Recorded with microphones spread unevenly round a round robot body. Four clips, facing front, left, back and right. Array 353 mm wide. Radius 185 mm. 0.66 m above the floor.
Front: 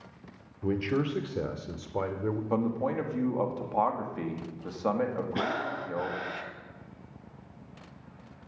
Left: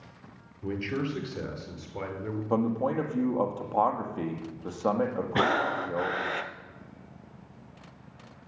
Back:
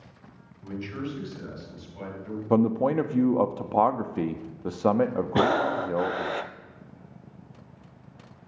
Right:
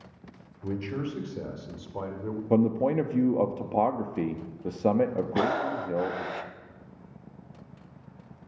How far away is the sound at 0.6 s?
About 2.5 m.